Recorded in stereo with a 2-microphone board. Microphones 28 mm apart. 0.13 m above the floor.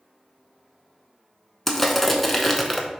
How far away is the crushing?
About 0.6 m.